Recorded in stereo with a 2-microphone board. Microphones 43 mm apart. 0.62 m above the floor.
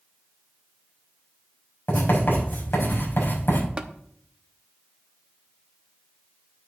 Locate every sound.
1.9 s writing: 55° left (ahead or behind), 5 m
3.8 s tapping: 20° right (ahead or behind), 0.8 m